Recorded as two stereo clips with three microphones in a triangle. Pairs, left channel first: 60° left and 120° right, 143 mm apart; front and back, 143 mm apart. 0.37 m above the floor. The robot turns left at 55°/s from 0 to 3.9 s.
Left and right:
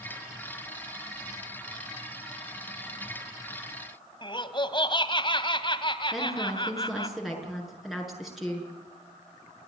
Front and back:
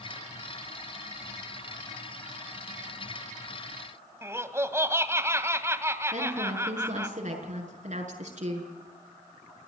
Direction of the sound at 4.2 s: 110° left.